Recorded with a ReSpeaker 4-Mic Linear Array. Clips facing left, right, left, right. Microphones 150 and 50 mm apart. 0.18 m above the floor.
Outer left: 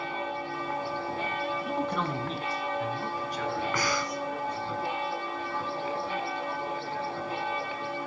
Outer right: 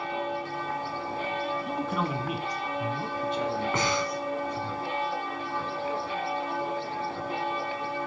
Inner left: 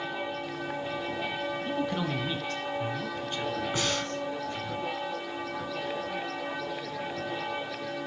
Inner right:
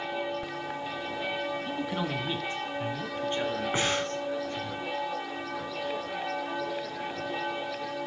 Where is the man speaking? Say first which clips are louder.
Even, inner left 1 dB; 5° left (ahead or behind), 1.2 m; by 4.7 s 35° right (ahead or behind), 3 m.